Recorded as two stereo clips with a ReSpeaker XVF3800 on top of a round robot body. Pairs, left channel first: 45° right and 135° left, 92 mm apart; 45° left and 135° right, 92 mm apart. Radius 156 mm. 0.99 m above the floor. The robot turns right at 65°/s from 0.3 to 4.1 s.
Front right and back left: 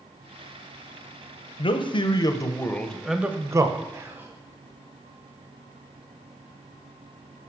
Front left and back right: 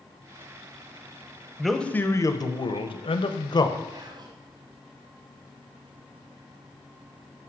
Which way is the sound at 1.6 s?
50° right.